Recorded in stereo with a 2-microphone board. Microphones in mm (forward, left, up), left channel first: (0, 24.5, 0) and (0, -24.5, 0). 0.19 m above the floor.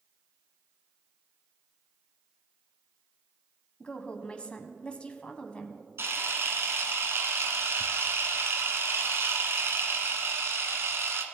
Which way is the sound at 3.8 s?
25° left (ahead or behind).